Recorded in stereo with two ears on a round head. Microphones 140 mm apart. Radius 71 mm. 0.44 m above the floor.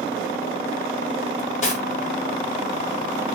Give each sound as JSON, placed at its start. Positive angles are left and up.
{"t": 1.4, "sound": "cutlery clinking", "side_deg": 45, "distance_m": 1.4}